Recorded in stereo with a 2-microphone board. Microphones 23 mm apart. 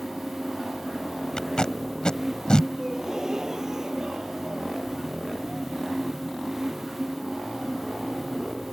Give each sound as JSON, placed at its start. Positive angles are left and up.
{"t": 1.4, "sound": "tape being pulled", "side_deg": 30}
{"t": 2.8, "sound": "a gasp", "side_deg": -20}